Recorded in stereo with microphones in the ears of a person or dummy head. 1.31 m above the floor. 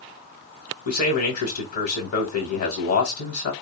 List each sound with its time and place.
0.8 s a man speaking: 50° left (ahead or behind), 1.3 m